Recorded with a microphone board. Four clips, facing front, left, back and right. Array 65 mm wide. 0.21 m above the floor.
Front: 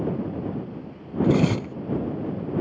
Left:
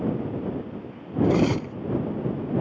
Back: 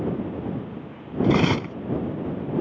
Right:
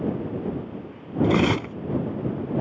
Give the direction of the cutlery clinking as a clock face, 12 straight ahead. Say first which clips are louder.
Right 1 dB, back 1 dB; 4 o'clock.